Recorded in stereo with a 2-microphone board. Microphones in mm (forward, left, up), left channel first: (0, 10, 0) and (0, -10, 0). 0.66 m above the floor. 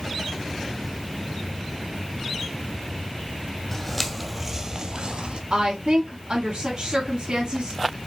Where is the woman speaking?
50° right (ahead or behind), 1.4 m.